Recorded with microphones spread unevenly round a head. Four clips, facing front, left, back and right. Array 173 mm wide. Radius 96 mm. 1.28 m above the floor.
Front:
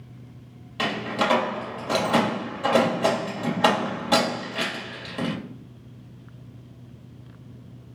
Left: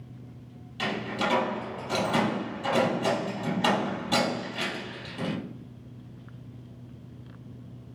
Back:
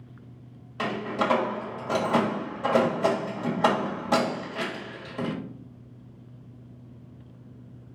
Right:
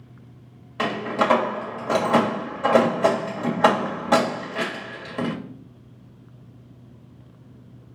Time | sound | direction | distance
0.8 | a door slam | 80° right | 1.5 m